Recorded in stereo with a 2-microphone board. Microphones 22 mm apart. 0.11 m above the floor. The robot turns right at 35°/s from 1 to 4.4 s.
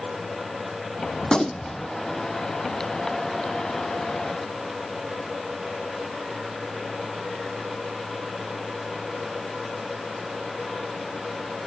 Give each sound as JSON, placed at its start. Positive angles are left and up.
{"t": 1.2, "sound": "a gunshot", "side_deg": 40, "distance_m": 0.9}